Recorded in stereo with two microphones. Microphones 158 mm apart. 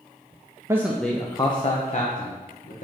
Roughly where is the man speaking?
Centre.